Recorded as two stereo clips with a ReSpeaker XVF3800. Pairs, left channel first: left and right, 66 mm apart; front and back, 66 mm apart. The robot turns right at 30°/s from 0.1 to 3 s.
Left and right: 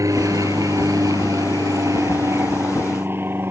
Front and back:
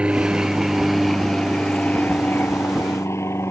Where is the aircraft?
110° right; by 3.5 s 40° right.